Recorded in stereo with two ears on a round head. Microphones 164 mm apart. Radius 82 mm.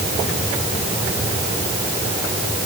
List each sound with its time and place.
Only background noise.